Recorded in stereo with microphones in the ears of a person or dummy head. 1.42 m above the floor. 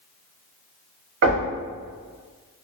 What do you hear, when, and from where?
1.2 s knocking: 50° right (ahead or behind), 1.1 m